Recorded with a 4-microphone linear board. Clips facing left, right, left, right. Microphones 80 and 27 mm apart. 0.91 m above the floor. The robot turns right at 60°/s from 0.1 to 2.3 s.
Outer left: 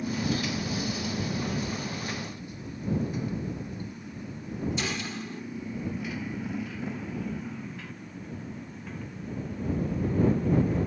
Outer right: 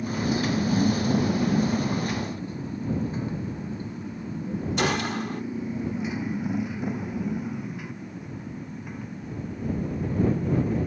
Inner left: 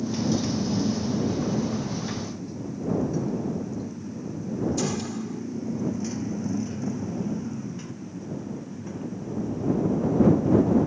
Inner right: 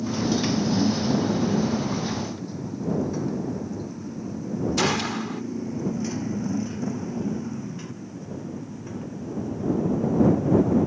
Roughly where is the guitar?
No guitar in this recording.